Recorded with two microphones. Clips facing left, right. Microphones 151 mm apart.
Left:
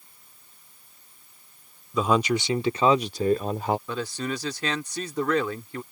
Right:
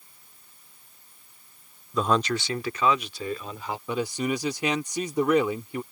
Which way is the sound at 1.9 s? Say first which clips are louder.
Left 2 dB; centre (ahead or behind).